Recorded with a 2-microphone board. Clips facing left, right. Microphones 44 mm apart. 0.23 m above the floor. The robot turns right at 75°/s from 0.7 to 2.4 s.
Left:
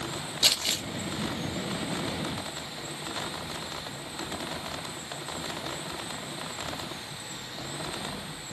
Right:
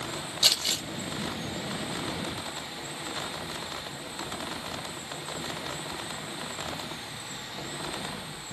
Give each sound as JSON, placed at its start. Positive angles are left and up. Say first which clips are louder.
{"t": 0.4, "sound": "crumpling", "louder": "even", "side_deg": 20, "distance_m": 2.0}